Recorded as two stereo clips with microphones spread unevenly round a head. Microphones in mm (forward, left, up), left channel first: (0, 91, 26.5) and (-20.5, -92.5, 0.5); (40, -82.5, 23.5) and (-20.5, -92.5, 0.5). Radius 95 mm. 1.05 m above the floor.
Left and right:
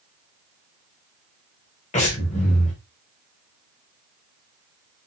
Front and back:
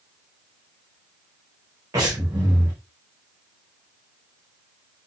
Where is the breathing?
140° left, 4.5 m.